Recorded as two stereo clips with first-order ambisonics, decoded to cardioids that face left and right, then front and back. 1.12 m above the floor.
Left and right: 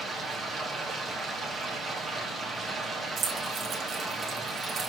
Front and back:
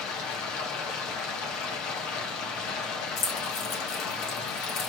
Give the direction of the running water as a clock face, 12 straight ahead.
12 o'clock.